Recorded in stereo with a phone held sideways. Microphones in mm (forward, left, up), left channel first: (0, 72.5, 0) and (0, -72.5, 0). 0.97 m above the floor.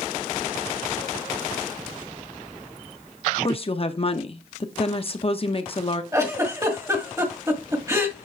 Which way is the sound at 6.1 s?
20° right (ahead or behind).